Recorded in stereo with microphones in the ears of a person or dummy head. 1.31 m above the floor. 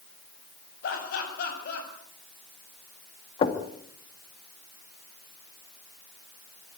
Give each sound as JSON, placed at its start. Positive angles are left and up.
{"t": 0.8, "sound": "laughter", "side_deg": 65, "distance_m": 8.0}
{"t": 3.4, "sound": "knocking", "side_deg": 30, "distance_m": 2.0}